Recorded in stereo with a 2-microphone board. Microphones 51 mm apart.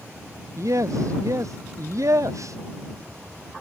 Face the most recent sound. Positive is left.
turn(degrees=-85)